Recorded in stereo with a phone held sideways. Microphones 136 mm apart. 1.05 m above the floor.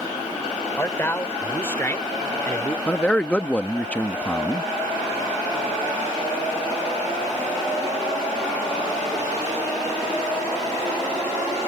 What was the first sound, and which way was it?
A man speaking, 15° left (ahead or behind).